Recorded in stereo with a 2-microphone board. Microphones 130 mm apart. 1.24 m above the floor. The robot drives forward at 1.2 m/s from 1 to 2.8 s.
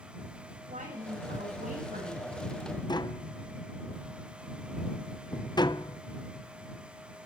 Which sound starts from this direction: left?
Tapping, at 2.9 s.